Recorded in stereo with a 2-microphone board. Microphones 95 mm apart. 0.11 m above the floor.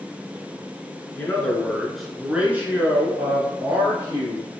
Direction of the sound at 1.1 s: 20° left (ahead or behind).